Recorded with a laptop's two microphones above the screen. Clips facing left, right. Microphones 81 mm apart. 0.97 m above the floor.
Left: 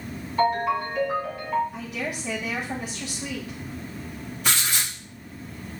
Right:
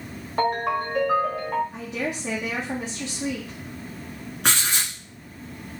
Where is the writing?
65° right (ahead or behind), 1.8 m.